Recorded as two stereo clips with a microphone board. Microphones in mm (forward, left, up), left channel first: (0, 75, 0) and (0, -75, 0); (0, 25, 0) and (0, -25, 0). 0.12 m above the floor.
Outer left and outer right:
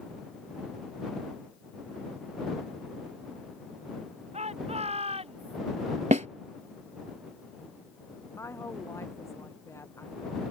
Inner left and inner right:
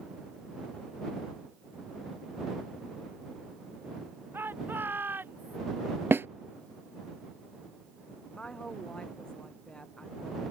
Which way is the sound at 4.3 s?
45° right (ahead or behind).